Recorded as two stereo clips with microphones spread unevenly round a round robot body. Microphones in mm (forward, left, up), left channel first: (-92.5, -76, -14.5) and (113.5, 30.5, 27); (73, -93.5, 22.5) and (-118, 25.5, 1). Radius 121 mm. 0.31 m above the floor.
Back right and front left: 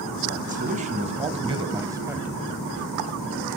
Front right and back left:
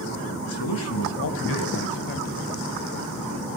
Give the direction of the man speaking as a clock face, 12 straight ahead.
1 o'clock.